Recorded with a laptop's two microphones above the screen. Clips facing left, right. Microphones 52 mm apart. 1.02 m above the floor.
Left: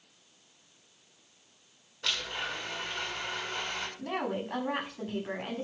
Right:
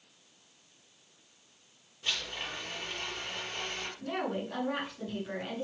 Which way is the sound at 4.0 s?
40° left (ahead or behind).